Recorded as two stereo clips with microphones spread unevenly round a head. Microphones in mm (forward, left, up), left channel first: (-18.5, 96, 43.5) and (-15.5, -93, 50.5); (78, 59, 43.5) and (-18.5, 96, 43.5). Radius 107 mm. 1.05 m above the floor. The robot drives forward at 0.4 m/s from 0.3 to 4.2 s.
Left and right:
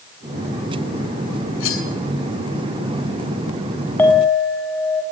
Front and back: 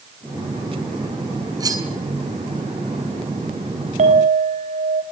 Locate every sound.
1.6 s cutlery clinking: 105° left, 8 m
4.0 s a clink: 170° left, 5 m